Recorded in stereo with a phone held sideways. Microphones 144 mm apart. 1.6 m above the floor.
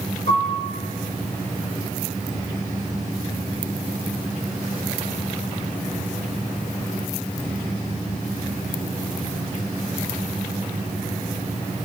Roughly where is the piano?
Left.